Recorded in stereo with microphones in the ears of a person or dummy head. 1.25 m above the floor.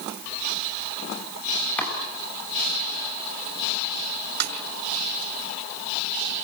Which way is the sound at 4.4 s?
65° right (ahead or behind).